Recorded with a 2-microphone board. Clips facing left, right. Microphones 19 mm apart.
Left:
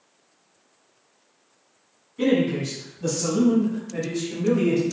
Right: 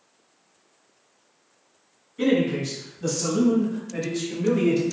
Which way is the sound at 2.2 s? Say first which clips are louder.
Even; 5° left (ahead or behind).